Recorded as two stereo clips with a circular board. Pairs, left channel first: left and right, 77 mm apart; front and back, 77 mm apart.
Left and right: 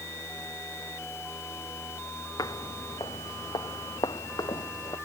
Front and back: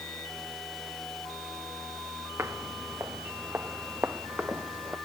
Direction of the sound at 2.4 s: 125° left.